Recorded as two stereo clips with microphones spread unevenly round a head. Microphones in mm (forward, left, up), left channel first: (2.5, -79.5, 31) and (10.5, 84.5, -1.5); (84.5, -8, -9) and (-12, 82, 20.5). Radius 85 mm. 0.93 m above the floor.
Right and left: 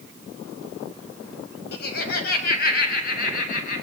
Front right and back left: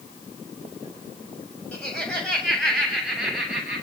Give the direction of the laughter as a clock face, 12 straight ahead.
4 o'clock.